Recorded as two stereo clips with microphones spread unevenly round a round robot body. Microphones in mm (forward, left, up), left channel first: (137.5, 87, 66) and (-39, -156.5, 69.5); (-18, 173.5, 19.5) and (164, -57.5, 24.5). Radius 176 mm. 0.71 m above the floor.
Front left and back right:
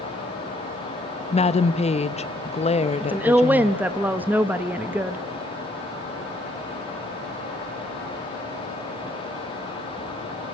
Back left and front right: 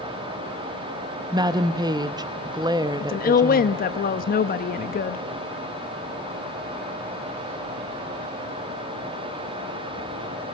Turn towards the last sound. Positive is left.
turn(degrees=155)